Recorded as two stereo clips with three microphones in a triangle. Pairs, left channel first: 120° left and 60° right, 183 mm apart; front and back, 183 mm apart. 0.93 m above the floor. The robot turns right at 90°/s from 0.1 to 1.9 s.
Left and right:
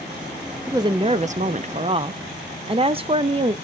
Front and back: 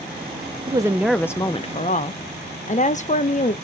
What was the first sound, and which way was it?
A woman speaking, 130° right.